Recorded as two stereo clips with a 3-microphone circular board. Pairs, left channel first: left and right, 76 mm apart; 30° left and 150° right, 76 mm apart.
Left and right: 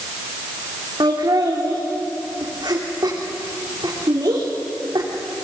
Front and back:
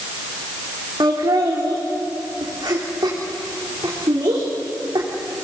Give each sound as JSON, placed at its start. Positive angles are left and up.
{"t": 1.0, "sound": "laughter", "azimuth_deg": -120, "distance_m": 3.5}